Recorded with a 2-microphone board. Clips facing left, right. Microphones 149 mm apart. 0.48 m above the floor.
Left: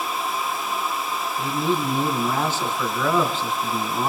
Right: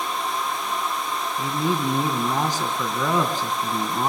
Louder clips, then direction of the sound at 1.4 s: Left 1 dB; 15° right (ahead or behind).